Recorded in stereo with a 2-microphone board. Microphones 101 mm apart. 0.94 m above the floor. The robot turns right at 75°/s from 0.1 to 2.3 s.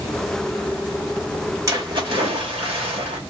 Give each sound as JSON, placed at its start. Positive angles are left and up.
{"t": 1.7, "sound": "a splash", "azimuth_deg": -150, "distance_m": 2.5}